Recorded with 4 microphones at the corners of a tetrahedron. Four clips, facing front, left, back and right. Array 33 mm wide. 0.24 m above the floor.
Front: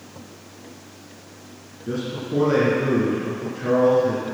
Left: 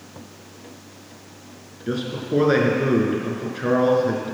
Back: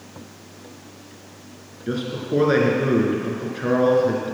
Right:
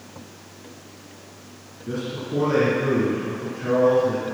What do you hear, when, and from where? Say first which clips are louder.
1.9 s a man speaking: left 3 dB, back 2 dB; 130° left, 3.5 m